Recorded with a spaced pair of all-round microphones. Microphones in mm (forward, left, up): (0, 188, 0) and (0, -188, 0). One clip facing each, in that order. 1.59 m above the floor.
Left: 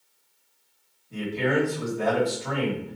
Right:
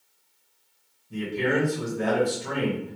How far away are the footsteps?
I don't hear footsteps.